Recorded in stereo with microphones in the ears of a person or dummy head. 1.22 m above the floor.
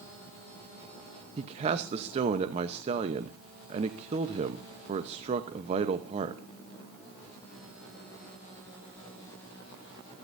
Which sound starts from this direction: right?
A man speaking, at 1.4 s.